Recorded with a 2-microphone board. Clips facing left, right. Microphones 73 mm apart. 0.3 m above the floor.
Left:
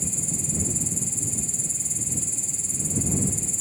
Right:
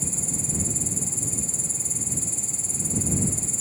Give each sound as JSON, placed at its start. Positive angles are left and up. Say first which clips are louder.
{"t": 0.0, "sound": "an insect", "louder": "even", "side_deg": -40}